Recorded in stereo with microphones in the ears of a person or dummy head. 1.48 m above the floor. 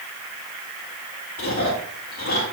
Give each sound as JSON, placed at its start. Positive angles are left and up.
{"t": 1.4, "sound": "chewing", "side_deg": 45, "distance_m": 2.0}